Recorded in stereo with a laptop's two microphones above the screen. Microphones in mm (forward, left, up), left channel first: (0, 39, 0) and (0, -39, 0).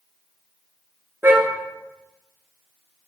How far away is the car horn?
About 9 m.